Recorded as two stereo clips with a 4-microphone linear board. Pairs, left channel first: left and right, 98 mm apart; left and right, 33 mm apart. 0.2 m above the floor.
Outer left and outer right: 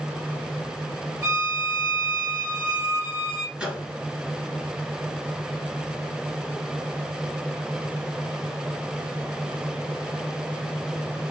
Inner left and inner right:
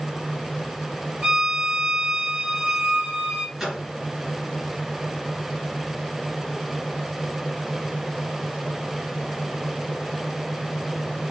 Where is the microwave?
10° right (ahead or behind), 2.0 m.